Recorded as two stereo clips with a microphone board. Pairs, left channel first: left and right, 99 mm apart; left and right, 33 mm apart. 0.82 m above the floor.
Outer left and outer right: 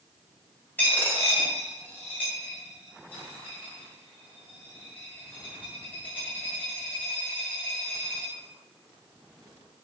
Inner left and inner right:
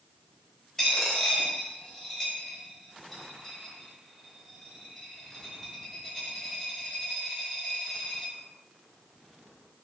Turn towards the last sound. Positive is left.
turn(degrees=20)  # may be behind; listen again after turning